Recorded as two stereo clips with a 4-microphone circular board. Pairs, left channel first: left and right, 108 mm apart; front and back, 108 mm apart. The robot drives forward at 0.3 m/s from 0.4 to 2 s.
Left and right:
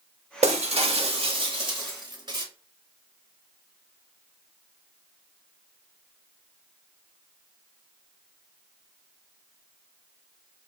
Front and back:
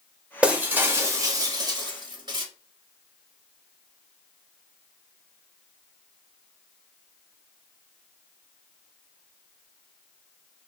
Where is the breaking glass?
100° right, 0.6 m; by 2.5 s 135° right, 0.9 m.